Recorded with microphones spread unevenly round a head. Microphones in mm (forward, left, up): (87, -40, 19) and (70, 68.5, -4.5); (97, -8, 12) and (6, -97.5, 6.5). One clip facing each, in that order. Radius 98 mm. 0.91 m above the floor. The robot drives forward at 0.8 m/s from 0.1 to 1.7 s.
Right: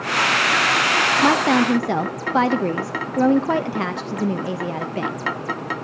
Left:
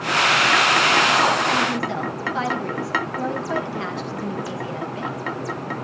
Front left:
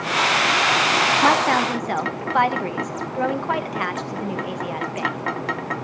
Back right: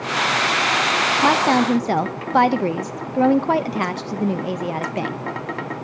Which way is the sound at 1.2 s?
55° right.